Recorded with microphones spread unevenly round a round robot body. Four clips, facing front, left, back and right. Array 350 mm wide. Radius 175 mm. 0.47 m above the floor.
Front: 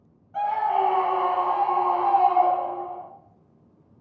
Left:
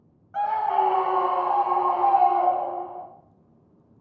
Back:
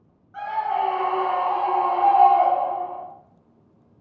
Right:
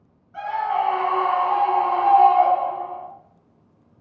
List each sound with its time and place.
0.3 s a scream: 70° left, 1.8 m; by 3.0 s 145° left, 3.5 m